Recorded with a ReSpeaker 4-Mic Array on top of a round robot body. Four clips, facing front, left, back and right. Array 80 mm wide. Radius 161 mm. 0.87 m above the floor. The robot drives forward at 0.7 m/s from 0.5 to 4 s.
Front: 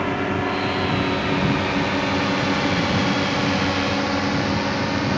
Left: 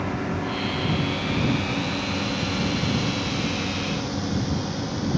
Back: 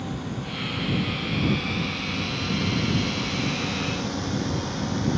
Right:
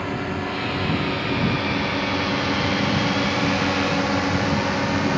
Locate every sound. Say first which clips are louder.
0.0 s a drone: right 1 dB, front 10 dB; 10° right; by 5.2 s 55° right